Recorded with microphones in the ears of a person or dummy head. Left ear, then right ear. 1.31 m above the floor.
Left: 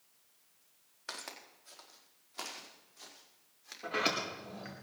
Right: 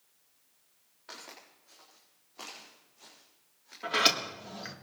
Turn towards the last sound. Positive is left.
turn(degrees=-40)  # may be behind; listen again after turning